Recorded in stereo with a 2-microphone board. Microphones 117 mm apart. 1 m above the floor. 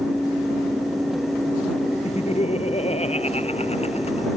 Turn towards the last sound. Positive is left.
turn(degrees=70)  # may be behind; listen again after turning